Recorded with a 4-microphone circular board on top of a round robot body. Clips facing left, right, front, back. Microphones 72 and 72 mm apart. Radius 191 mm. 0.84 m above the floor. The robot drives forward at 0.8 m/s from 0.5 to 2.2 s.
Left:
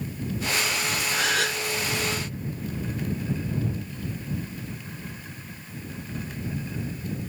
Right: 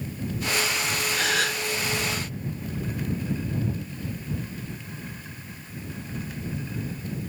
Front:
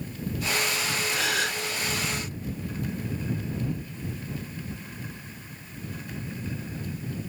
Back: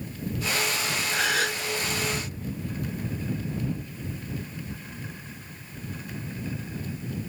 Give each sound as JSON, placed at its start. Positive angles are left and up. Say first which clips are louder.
{"t": 1.1, "sound": "a gasp", "louder": "left 1 dB, back 4 dB", "azimuth_deg": 135, "distance_m": 1.8}